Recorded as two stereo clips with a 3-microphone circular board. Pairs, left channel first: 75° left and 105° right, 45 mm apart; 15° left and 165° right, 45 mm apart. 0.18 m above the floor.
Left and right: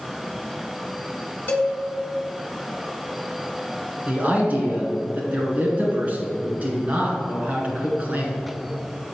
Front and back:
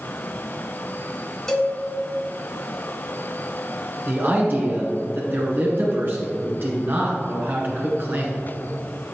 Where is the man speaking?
150° right, 2 m.